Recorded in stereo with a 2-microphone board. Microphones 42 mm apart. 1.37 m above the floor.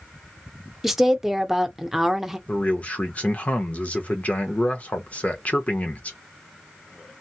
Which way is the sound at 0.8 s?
5° right (ahead or behind).